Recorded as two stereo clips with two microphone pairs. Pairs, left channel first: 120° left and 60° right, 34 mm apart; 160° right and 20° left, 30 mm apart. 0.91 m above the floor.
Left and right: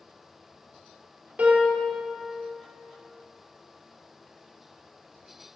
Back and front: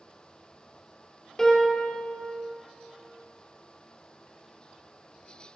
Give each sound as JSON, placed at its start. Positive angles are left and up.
{"t": 1.4, "sound": "a piano", "azimuth_deg": -90, "distance_m": 2.0}